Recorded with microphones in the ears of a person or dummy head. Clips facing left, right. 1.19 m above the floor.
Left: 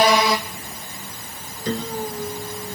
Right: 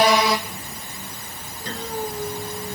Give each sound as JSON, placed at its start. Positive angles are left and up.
{"t": 1.6, "sound": "a piano", "side_deg": 85}